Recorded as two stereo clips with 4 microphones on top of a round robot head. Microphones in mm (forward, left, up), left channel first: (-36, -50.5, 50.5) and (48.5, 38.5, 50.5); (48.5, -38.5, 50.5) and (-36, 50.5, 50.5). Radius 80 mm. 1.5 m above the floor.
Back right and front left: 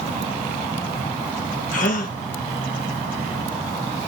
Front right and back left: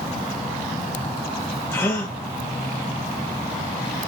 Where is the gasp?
115° right, 0.7 m.